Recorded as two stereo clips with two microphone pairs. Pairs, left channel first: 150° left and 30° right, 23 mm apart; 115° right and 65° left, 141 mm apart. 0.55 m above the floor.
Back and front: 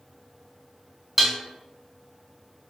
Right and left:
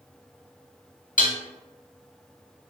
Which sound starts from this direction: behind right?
Dishes clattering, at 1.2 s.